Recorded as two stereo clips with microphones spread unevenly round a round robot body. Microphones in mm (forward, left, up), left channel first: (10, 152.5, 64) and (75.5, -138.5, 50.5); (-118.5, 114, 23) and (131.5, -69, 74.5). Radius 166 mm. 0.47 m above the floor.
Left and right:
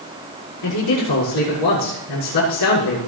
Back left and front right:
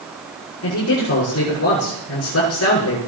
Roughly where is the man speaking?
Left.